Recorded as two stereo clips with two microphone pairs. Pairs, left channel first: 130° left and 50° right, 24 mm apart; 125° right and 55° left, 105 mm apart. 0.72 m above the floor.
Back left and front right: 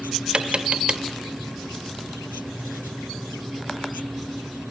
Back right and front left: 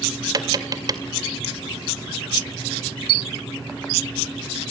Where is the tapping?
Straight ahead, 2 m.